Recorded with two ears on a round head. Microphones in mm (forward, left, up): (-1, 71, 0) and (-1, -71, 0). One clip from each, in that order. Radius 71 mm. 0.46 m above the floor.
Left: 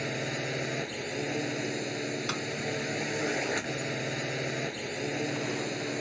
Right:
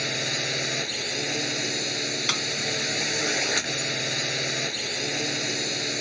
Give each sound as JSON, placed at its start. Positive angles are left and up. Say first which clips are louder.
{"t": 0.0, "sound": "a drone", "louder": "right 7 dB", "side_deg": -80}
{"t": 2.3, "sound": "a snare drum", "louder": "right 10 dB", "side_deg": -65}